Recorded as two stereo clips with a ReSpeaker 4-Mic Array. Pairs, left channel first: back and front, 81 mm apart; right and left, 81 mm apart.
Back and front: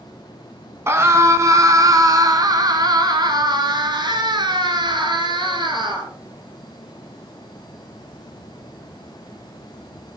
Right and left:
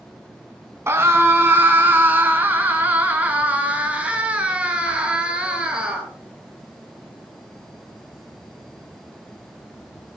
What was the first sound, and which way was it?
A scream, 45° left.